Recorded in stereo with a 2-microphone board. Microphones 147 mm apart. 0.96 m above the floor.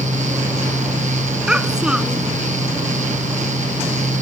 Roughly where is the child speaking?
Centre.